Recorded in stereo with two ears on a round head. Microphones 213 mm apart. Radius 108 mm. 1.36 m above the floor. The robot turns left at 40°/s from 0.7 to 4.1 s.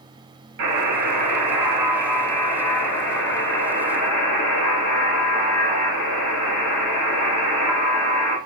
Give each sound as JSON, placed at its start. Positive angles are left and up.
{"t": 0.6, "sound": "a buzzer", "azimuth_deg": -130, "distance_m": 1.3}